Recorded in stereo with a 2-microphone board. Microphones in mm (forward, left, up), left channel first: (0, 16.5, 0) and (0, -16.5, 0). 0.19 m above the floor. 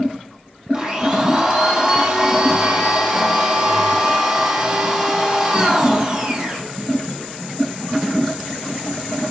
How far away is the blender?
About 2.5 m.